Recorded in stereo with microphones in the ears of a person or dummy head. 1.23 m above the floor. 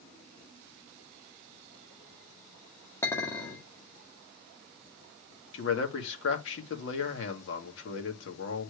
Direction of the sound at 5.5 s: 70° left (ahead or behind).